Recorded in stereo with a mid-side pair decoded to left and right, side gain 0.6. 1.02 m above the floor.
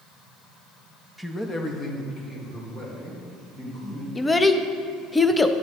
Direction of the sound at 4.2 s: 10° left.